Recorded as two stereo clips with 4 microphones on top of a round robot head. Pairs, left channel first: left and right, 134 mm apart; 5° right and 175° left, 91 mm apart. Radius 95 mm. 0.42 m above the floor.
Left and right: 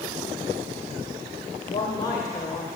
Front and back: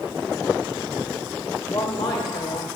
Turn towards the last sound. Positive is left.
turn(degrees=10)